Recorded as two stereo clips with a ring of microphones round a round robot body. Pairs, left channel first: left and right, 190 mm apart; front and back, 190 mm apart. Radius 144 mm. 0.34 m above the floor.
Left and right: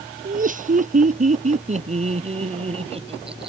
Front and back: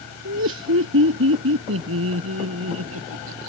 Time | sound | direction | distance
0.2 | laughter | 135° right | ?